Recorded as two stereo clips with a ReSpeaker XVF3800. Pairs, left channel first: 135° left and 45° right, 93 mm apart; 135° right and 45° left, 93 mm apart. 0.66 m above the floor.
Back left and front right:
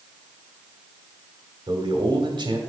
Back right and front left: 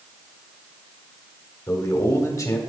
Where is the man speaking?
80° right, 1.5 m.